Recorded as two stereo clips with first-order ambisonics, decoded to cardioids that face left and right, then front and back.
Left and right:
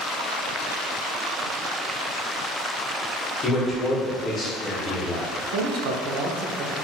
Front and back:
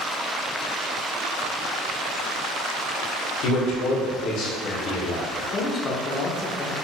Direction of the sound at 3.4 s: 20° left.